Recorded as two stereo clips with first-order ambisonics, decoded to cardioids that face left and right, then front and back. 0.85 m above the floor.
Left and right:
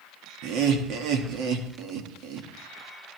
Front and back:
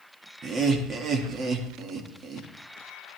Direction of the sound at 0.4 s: 120° right.